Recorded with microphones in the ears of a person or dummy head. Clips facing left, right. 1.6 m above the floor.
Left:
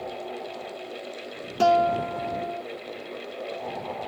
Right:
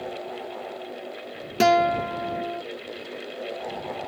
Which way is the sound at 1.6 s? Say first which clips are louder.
Right 1 dB; 25° right (ahead or behind).